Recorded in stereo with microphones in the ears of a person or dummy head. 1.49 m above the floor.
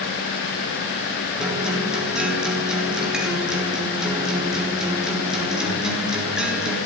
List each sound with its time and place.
1.4 s a guitar: 5° right (ahead or behind), 4 m